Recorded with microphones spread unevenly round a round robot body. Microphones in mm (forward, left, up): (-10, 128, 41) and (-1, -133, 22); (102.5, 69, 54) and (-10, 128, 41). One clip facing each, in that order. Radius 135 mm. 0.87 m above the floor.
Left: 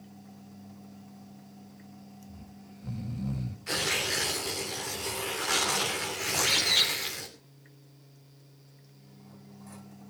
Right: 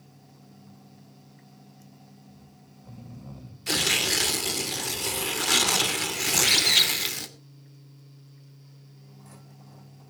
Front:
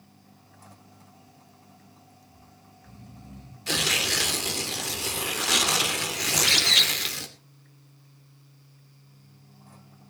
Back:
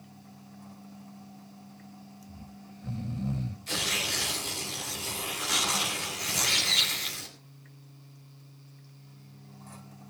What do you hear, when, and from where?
2.3 s snoring: 145° left, 1.5 m
3.7 s tearing paper: 50° right, 2.5 m
6.3 s a bird: 40° right, 2.5 m